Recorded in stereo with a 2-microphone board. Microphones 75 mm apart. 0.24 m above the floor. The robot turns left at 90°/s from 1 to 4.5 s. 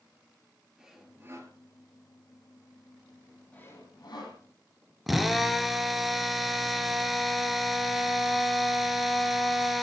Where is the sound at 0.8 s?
5° right, 3.5 m; by 1.5 s 55° right, 3.5 m.